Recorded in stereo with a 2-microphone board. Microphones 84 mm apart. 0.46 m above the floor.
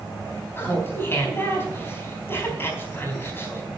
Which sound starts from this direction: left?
Laughter, at 0.6 s.